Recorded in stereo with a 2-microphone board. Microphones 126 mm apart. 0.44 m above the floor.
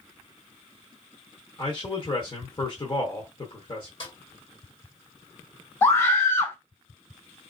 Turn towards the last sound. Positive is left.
turn(degrees=20)  # may be behind; listen again after turning